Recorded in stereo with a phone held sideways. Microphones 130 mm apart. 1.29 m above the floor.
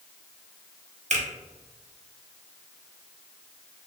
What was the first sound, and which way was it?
A finger snap, 65° right (ahead or behind).